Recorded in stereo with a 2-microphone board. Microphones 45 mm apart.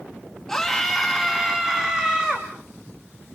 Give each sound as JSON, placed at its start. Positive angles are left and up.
{"t": 0.5, "sound": "a scream", "side_deg": 10, "distance_m": 1.8}